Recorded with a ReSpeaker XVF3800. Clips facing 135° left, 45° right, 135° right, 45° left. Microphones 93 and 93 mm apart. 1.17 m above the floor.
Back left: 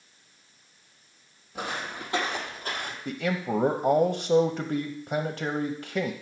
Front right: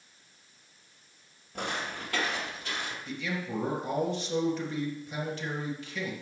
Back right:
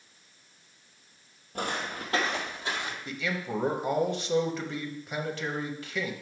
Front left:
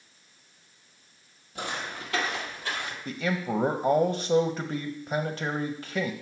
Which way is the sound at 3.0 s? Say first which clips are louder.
Back left 9 dB, front left 6 dB; 110° left.